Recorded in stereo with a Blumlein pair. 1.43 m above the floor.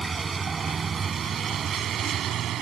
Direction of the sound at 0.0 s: 15° right.